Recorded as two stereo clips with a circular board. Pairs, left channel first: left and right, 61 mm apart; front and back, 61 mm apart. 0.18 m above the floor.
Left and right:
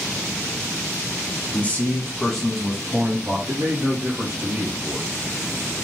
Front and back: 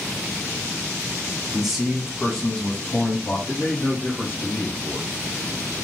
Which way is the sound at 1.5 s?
105° left.